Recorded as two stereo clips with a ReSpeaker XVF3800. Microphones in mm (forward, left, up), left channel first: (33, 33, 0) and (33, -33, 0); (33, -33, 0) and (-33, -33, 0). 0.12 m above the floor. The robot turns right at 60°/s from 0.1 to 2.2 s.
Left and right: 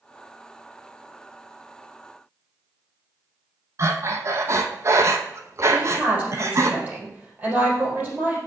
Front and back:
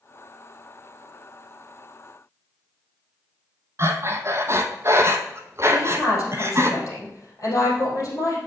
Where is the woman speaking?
30° right, 4 m.